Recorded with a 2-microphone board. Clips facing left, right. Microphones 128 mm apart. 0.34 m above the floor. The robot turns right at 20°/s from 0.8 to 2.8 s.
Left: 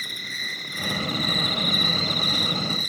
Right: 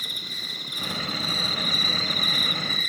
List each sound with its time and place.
0.0 s an insect: 160° right, 2.5 m; by 2.9 s 120° right, 2.5 m